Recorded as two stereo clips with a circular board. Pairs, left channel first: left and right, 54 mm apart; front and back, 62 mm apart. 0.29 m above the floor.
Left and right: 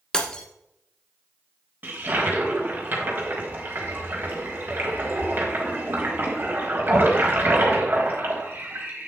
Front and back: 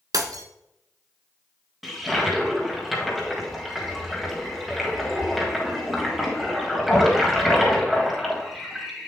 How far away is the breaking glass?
About 0.8 m.